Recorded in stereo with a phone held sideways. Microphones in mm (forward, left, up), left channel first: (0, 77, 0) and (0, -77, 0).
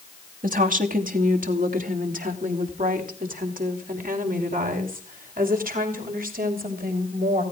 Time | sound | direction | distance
0.4 | a woman speaking | 60° right (ahead or behind) | 2.5 m